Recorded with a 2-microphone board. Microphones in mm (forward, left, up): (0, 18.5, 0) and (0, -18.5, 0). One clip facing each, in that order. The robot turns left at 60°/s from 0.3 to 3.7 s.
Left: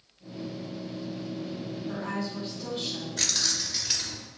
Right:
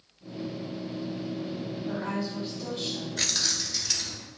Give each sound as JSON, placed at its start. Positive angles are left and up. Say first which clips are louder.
{"t": 1.9, "sound": "a woman speaking", "louder": "right 1 dB", "azimuth_deg": -150, "distance_m": 2.0}
{"t": 3.2, "sound": "keys jangling", "louder": "even", "azimuth_deg": -165, "distance_m": 0.8}